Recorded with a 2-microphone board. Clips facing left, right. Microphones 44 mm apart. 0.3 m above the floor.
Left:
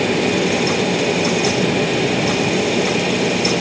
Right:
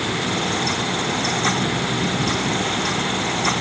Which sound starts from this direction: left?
An aircraft, at 0.0 s.